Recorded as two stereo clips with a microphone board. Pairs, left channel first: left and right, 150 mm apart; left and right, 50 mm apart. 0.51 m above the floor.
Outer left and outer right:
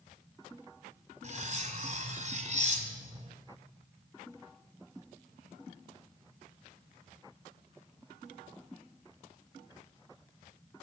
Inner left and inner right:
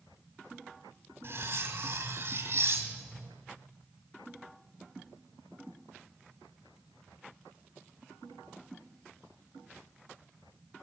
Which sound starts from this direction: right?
Cutlery clinking, at 1.2 s.